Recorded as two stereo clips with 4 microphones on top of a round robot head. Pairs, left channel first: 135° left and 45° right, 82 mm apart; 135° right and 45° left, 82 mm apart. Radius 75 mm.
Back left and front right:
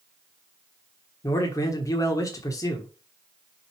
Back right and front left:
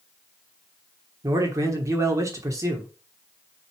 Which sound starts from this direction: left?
A man speaking, at 1.2 s.